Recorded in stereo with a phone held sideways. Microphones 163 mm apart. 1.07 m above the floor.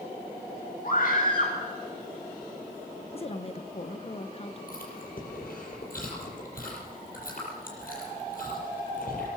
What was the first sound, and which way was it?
A scream, 60° left (ahead or behind).